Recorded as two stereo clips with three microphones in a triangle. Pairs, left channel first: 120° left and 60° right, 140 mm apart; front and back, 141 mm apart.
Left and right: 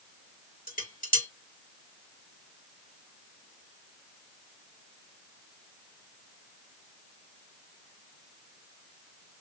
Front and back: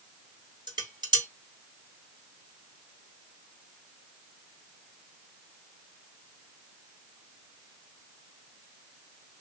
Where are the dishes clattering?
125° left, 2.5 m.